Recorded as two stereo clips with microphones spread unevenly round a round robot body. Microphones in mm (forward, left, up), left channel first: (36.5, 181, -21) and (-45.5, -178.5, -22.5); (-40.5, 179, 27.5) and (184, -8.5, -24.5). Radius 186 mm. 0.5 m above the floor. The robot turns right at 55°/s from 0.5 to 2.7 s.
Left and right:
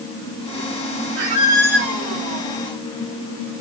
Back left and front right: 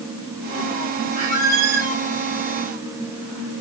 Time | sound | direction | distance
1.2 | a squeak | 65° right | 0.9 m